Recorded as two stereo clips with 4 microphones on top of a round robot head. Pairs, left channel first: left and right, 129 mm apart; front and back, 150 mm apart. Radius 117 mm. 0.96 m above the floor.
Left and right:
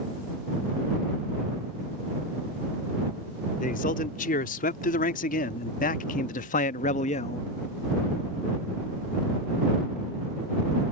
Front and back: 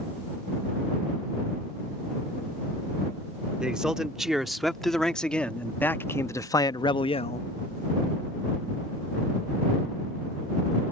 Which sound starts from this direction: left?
A man speaking, at 3.6 s.